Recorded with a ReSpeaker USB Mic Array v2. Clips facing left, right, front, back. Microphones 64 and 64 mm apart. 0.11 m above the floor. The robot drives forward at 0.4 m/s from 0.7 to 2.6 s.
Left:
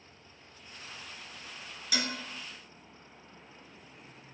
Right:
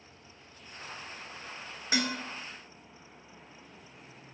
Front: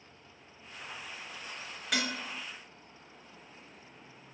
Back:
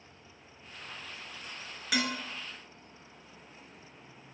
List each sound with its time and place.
1.9 s dishes clattering: 95° right, 1.0 m; by 2.2 s 105° right, 1.0 m